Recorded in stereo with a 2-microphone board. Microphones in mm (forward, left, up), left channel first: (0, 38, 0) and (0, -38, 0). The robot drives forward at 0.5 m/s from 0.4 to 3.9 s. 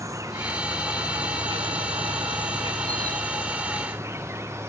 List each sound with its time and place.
0.0 s an insect: 45° right (ahead or behind), 1.1 m; by 4.7 s 35° right (ahead or behind), 1.2 m